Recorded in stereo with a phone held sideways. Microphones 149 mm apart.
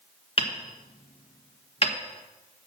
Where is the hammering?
35° left (ahead or behind), 1.3 m.